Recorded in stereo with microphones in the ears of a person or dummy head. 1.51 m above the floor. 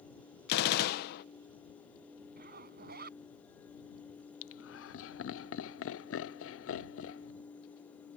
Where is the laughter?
75° left (ahead or behind).